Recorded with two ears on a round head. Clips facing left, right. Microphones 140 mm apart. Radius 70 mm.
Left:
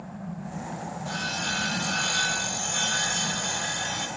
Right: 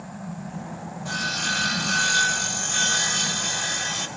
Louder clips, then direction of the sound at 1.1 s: Right 4 dB; 60° right (ahead or behind).